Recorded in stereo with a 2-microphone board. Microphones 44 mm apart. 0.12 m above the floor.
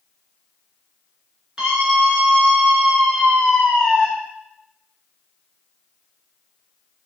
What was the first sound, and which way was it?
A scream, 20° right (ahead or behind).